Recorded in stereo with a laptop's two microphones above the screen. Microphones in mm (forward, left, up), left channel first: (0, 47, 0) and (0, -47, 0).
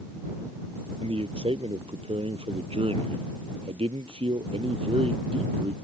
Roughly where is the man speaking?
Right.